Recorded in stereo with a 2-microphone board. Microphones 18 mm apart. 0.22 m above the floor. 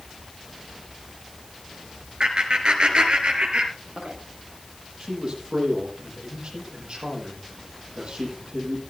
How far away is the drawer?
I don't hear a drawer.